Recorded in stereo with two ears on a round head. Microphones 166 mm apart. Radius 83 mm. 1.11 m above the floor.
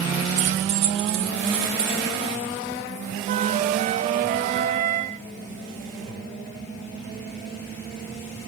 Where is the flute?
40° right (ahead or behind), 0.9 m.